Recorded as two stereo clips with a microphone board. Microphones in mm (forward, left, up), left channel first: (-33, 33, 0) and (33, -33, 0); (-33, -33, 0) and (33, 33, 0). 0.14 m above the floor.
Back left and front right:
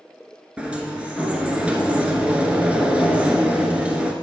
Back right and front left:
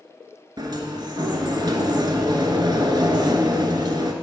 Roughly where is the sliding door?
Ahead left.